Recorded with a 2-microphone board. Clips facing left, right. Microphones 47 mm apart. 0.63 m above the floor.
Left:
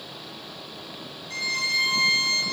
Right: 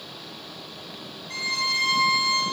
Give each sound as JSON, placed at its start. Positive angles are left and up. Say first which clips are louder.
{"t": 1.3, "sound": "a violin", "louder": "even", "side_deg": -45, "distance_m": 1.9}